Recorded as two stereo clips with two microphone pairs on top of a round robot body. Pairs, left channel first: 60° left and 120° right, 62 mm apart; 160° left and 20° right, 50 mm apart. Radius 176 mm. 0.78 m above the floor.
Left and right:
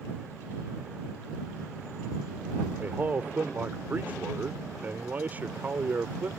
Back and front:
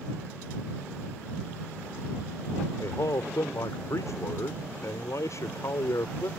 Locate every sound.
2.8 s a man speaking: 175° left